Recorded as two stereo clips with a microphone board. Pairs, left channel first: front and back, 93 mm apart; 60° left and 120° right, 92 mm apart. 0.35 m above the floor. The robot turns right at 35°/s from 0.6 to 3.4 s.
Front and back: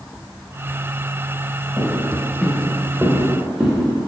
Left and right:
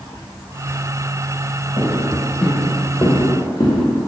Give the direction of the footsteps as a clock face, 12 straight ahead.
9 o'clock.